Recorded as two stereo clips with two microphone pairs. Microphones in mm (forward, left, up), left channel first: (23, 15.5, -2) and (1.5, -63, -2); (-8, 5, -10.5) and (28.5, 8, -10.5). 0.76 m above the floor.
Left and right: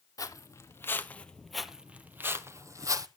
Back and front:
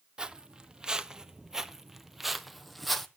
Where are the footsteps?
60° left, 1.1 m; by 3.1 s 90° right, 1.2 m.